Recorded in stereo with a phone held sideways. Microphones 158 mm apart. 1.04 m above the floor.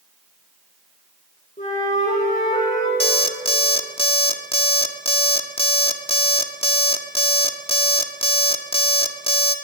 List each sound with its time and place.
1.6 s a flute: 50° left (ahead or behind), 9 m
3.0 s an alarm clock: 35° left (ahead or behind), 1.3 m